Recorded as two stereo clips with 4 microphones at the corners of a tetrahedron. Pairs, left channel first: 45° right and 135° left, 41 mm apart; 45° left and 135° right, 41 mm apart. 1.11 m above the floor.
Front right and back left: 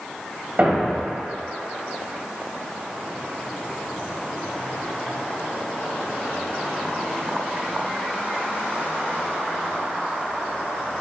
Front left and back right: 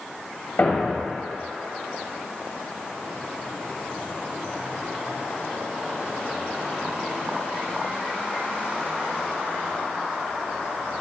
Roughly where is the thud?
Left.